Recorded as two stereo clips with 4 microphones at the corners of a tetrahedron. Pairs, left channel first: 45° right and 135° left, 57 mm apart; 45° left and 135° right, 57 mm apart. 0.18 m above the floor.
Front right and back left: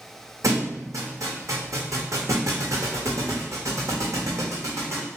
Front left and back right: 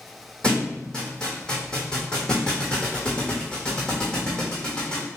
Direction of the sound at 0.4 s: 120° left.